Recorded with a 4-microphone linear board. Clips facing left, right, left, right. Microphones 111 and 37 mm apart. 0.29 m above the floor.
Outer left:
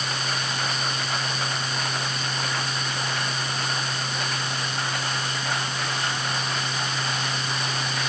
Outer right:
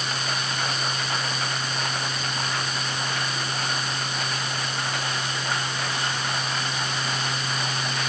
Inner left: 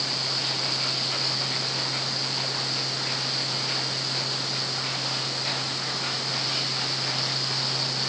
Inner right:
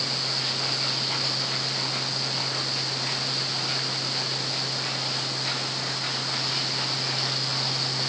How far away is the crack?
I don't hear a crack.